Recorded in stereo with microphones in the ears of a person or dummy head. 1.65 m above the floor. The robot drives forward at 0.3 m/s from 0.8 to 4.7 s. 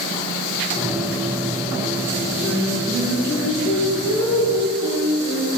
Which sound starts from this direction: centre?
Singing, at 2.4 s.